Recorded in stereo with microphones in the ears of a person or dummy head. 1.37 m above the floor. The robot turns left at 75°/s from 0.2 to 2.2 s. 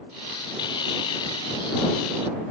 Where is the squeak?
I don't hear a squeak.